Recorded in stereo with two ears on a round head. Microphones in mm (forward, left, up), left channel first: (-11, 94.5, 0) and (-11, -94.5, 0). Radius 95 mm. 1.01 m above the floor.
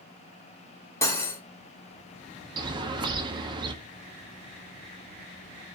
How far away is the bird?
About 0.5 m.